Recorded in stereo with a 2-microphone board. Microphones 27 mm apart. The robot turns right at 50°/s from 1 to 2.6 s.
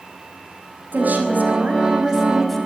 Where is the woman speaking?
75° right, 5.5 m; by 2.7 s 5° left, 5.5 m.